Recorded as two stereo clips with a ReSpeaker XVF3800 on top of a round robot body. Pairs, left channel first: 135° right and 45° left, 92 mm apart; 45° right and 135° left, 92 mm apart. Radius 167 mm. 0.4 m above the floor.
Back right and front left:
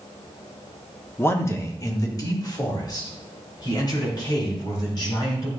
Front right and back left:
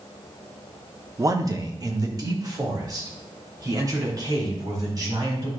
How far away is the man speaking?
About 1.2 m.